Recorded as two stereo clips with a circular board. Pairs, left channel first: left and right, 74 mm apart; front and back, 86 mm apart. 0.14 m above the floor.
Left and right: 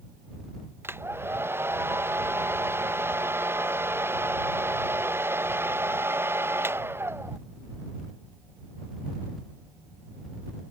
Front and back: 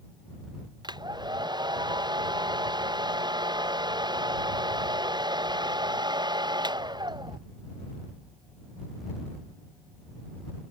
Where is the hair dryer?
150° right.